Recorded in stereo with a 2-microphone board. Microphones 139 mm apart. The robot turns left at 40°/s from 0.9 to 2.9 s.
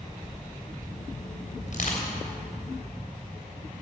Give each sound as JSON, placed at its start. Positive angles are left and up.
{"t": 1.7, "sound": "crushing", "side_deg": 60, "distance_m": 3.0}